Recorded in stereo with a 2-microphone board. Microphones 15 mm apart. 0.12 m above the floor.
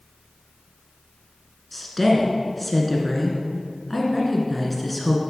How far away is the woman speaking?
About 1.4 m.